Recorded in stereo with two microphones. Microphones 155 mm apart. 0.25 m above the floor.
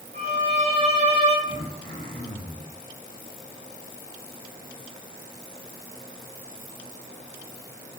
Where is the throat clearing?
55° right (ahead or behind), 1.5 m.